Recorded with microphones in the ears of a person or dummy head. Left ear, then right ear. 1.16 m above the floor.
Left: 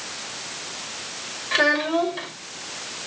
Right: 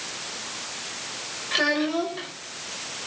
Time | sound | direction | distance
1.5 | a child speaking | 35° left (ahead or behind) | 4 m